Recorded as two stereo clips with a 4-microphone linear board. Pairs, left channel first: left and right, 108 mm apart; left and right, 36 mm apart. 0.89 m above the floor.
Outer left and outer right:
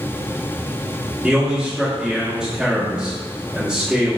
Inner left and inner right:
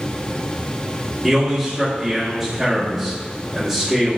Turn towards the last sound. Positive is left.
turn(degrees=-10)  # may be behind; listen again after turning